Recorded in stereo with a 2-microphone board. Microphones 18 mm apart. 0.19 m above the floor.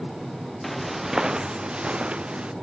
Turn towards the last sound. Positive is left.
turn(degrees=-70)  # may be behind; listen again after turning